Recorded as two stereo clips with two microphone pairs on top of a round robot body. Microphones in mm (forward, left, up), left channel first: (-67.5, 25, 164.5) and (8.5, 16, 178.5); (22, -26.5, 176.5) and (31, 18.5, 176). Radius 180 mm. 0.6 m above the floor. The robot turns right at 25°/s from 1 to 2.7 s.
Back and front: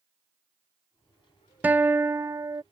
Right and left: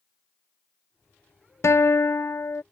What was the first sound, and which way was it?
A guitar, 80° right.